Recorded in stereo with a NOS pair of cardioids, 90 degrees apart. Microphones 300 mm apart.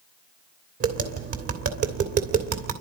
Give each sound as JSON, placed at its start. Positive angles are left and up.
{"t": 0.8, "sound": "tapping", "azimuth_deg": -55, "distance_m": 3.0}